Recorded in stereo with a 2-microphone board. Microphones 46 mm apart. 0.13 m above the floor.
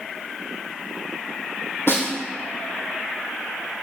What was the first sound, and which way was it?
A snare drum, 60° left (ahead or behind).